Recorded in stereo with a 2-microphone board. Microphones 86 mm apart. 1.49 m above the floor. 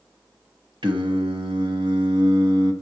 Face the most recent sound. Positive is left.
turn(degrees=-75)  # may be behind; listen again after turning